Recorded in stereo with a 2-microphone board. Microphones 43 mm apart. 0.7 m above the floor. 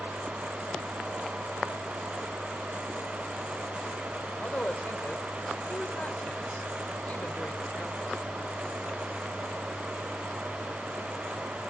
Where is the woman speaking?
40° left (ahead or behind), 2 m.